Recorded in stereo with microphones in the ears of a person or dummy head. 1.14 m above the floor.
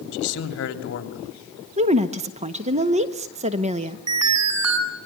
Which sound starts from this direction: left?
A man speaking, at 0.1 s.